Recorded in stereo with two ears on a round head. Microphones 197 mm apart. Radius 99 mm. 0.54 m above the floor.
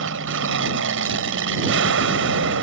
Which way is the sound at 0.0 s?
60° right (ahead or behind).